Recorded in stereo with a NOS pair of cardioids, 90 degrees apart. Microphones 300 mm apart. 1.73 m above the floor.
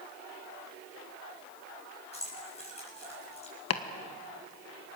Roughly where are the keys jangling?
Ahead.